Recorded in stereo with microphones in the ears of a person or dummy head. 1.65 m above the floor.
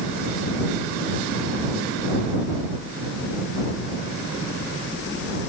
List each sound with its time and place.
Only background noise.